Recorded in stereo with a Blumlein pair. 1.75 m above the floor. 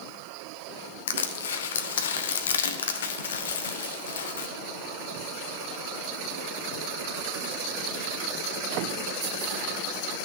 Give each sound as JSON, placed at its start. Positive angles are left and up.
{"t": 1.1, "sound": "crushing", "azimuth_deg": 60, "distance_m": 0.9}